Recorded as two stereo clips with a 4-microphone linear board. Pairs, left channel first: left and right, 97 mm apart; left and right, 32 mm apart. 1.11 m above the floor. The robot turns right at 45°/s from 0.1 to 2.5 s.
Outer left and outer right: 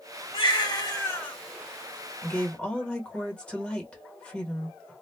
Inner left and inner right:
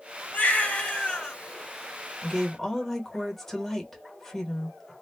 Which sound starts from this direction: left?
A woman speaking, at 2.2 s.